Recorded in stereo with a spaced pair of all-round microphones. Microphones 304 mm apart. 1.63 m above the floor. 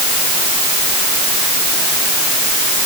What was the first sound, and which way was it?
Only background noise.